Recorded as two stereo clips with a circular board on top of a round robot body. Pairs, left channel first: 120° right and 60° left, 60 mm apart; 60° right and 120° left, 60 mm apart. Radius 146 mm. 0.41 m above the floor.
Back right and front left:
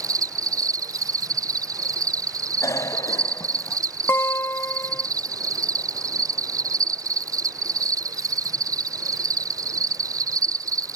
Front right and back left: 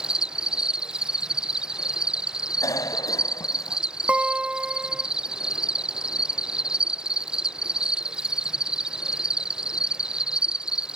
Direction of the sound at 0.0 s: 40° left.